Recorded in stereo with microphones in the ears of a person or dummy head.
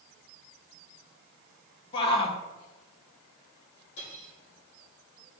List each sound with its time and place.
1.9 s a shout: 30° left (ahead or behind), 1.4 m
4.0 s cutlery clinking: 70° left (ahead or behind), 3.5 m